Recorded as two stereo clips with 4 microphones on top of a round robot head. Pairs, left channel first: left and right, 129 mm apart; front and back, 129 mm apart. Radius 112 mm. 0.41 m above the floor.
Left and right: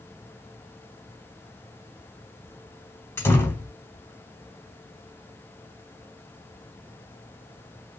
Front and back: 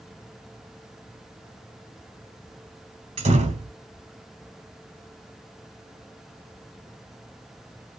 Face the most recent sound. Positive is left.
turn(degrees=160)